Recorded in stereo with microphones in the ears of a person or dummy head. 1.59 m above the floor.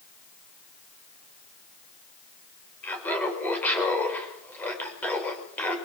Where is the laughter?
10° left (ahead or behind), 5.5 m.